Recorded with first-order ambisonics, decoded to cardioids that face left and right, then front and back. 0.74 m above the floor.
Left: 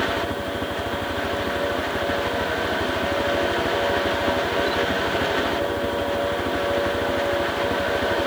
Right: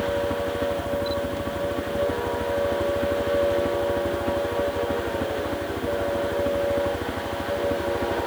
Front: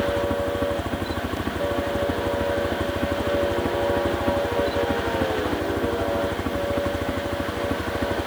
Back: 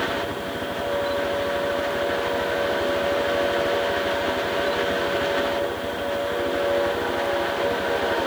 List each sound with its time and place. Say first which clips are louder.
0.0 s a helicopter: even, front 3 dB; straight ahead